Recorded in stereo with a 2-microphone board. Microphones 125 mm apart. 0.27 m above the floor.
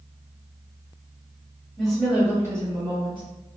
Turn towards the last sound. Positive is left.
turn(degrees=-40)  # may be behind; listen again after turning